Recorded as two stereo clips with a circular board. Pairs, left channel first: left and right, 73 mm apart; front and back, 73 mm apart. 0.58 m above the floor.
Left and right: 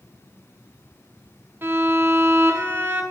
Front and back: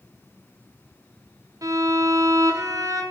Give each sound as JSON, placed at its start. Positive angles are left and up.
{"t": 1.6, "sound": "a violin", "azimuth_deg": -150, "distance_m": 1.1}